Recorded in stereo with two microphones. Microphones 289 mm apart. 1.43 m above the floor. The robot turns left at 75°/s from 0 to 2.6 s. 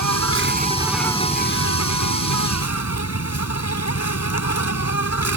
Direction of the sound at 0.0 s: 105° right.